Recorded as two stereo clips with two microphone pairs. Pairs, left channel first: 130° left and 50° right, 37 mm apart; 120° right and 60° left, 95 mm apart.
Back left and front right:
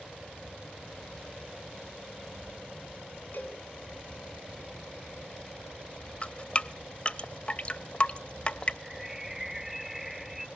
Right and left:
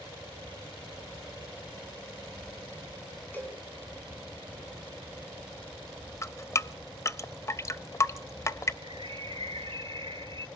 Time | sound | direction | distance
3.3 | a cowbell | 170° left | 4 m
6.2 | dripping | 175° right | 0.5 m
8.8 | a bird | 35° left | 0.7 m